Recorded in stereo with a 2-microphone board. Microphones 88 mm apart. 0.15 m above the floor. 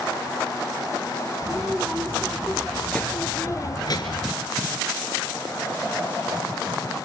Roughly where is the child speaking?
Centre.